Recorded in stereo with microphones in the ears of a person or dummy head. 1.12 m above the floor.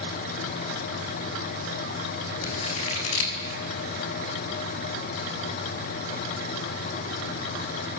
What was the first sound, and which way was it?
Scissors, 85° left.